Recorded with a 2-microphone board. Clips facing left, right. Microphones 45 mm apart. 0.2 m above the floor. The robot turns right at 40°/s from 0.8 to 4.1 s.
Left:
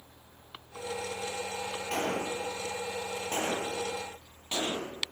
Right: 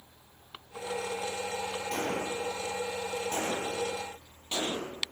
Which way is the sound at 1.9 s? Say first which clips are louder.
Left 2 dB; 65° left (ahead or behind).